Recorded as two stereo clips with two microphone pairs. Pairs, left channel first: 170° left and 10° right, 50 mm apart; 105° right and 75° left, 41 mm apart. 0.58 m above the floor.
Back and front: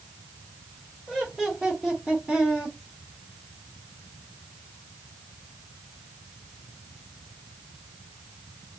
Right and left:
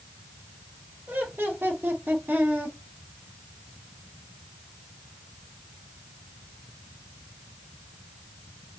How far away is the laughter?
About 2.5 m.